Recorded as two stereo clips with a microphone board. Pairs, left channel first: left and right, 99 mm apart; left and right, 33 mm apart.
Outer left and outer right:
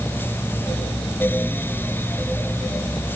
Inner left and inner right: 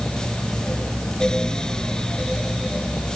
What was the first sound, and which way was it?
Only background noise.